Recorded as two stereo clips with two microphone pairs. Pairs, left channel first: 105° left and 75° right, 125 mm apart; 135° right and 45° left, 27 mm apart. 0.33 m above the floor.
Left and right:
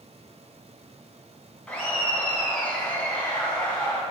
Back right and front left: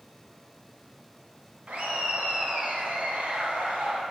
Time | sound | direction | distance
1.7 | laughter | 25° left | 2.5 m